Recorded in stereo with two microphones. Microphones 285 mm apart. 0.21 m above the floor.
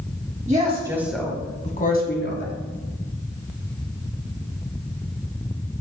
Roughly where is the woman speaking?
Right.